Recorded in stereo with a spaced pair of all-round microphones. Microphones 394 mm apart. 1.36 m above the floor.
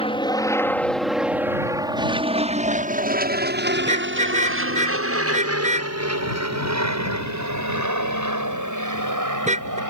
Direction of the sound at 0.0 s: 15° left (ahead or behind).